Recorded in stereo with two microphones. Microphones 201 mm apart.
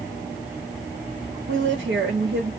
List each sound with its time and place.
1.5 s a woman speaking: 65° right (ahead or behind), 0.8 m